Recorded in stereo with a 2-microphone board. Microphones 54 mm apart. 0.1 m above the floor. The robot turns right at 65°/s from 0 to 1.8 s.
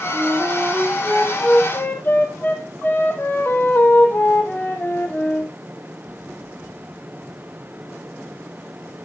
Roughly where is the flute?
Ahead right.